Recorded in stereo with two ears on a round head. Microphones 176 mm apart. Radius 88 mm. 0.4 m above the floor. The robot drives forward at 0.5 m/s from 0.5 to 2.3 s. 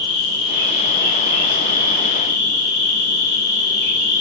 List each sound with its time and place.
0.0 s an insect: 70° left (ahead or behind), 1.8 m; by 4.2 s 50° left (ahead or behind), 2.5 m